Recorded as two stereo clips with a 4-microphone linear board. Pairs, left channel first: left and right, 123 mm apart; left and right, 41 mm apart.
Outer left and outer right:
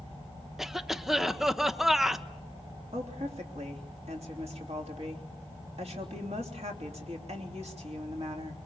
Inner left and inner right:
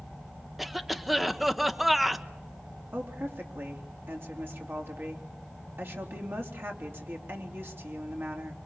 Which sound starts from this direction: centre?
A cough, at 0.6 s.